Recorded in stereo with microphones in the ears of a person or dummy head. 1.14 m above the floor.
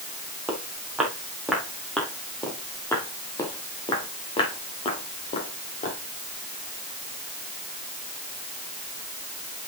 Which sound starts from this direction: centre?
Footsteps, at 0.5 s.